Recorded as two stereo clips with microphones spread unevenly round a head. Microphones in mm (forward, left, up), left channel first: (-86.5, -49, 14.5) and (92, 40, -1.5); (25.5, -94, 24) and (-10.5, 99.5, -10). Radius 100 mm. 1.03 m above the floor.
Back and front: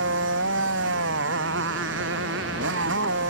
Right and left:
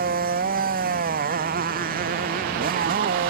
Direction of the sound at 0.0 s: 55° left.